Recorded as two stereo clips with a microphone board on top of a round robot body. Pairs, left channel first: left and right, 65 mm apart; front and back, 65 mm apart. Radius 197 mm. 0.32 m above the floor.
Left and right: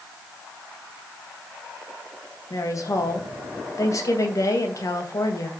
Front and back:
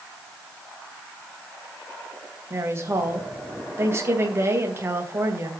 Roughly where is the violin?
No violin in this recording.